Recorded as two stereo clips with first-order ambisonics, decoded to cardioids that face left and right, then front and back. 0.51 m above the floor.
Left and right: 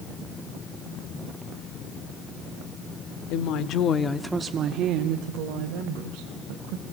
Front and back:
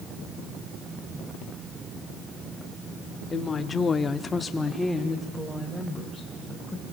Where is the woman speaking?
70° left, 1.5 m; by 6.8 s 95° right, 3.5 m.